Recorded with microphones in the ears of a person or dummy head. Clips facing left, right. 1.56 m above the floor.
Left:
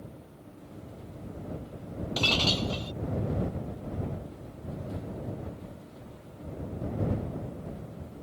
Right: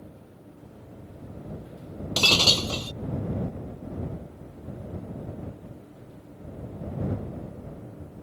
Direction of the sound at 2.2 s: 70° right (ahead or behind).